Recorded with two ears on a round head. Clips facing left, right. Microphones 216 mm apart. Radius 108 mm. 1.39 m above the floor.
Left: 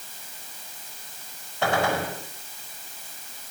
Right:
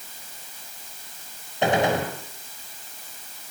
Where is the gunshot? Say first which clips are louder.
Right 3 dB; 20° right (ahead or behind), 4 m.